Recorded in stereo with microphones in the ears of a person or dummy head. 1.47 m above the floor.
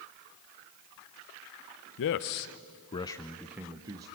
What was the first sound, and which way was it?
A man speaking, 65° left (ahead or behind).